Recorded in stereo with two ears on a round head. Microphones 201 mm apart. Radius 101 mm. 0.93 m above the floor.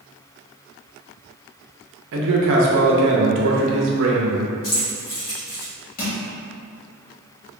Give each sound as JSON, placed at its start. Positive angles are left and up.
{"t": 2.1, "sound": "a man speaking", "side_deg": -60, "distance_m": 0.6}
{"t": 4.6, "sound": "keys jangling", "side_deg": 60, "distance_m": 1.1}
{"t": 6.0, "sound": "crushing", "side_deg": 40, "distance_m": 1.0}